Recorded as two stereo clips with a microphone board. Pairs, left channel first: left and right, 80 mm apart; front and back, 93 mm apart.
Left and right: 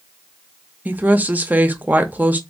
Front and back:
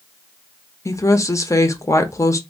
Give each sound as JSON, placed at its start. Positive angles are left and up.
{"t": 0.8, "sound": "a woman speaking", "azimuth_deg": -30, "distance_m": 0.6}